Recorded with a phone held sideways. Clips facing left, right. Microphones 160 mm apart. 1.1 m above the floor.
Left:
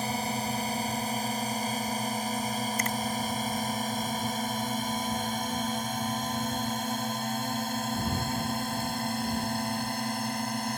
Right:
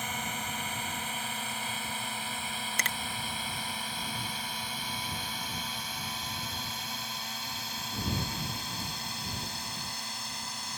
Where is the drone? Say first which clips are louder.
Left 7 dB; 35° left (ahead or behind); by 10.8 s 55° left (ahead or behind).